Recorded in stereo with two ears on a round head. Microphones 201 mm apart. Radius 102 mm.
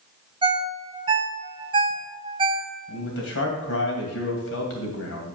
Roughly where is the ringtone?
Right.